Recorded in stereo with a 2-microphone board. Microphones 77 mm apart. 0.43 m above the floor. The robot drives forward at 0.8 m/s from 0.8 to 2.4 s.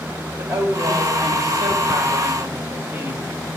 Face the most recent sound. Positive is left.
turn(degrees=-40)  # may be behind; listen again after turning